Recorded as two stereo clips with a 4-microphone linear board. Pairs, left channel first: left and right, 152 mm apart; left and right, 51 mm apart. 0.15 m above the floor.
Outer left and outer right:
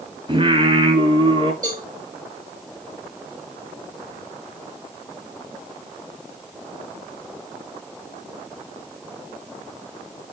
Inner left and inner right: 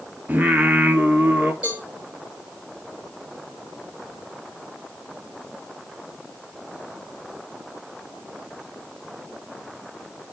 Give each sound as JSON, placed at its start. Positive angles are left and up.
{"t": 0.3, "sound": "singing", "side_deg": -35, "distance_m": 1.6}
{"t": 1.6, "sound": "a cowbell", "side_deg": -20, "distance_m": 4.0}